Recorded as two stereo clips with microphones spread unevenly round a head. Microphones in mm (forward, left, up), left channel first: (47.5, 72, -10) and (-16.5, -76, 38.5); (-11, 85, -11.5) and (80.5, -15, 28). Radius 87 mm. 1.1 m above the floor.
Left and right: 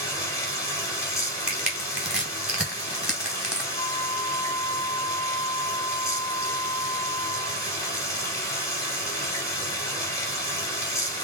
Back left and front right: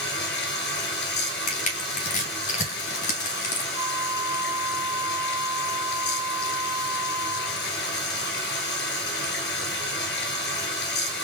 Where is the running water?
150° left, 2 m.